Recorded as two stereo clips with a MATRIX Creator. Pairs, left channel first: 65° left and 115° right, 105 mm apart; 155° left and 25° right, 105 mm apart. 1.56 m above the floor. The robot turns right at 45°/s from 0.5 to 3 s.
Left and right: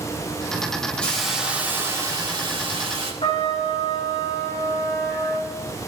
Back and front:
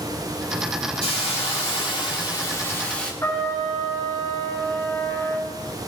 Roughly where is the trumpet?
Left.